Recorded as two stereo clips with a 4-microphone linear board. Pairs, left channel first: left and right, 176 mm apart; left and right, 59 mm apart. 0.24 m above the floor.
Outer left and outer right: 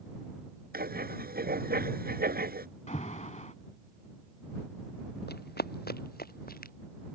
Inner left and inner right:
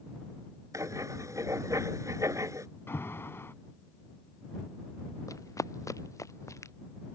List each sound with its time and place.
0.7 s writing: 60° right (ahead or behind)
2.9 s an alarm: 40° left (ahead or behind)
5.3 s running footsteps: 65° left (ahead or behind); by 6.7 s 55° left (ahead or behind)